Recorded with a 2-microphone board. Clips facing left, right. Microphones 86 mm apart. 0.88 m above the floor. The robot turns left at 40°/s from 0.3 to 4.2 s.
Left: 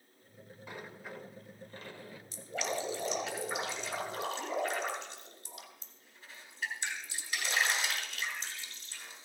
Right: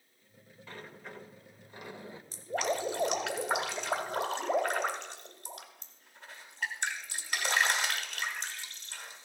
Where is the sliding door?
20° left, 0.7 m; by 2.2 s 40° right, 0.7 m.